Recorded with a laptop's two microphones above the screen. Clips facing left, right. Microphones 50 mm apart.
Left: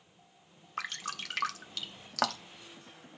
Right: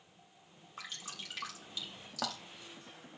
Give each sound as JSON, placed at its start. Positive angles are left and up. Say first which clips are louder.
{"t": 0.8, "sound": "dripping", "louder": "left 9 dB", "side_deg": 65, "distance_m": 0.9}